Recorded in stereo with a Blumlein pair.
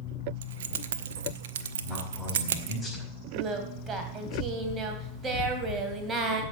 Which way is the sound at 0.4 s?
60° right.